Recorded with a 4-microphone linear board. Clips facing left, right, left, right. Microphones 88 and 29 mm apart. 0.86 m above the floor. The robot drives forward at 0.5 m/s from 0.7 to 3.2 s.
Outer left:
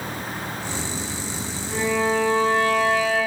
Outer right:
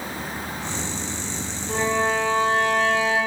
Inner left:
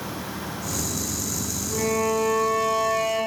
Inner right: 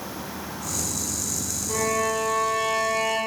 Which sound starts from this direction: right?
A violin, at 1.7 s.